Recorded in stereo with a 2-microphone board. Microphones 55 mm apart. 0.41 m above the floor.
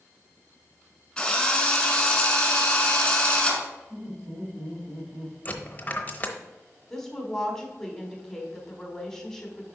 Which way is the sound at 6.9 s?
10° left (ahead or behind).